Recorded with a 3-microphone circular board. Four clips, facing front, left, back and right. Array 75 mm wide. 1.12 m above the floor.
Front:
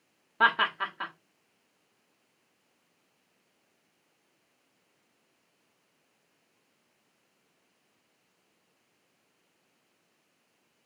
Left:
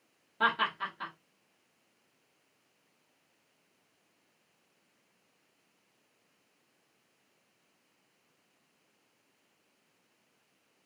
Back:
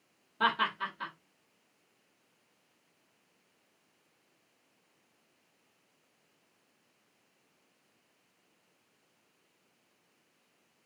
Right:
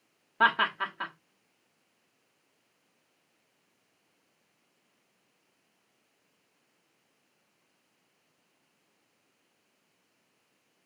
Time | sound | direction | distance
0.4 | laughter | 45° right | 1.2 m